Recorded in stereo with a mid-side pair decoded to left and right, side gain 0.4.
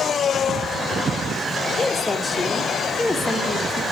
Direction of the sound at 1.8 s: 20° left.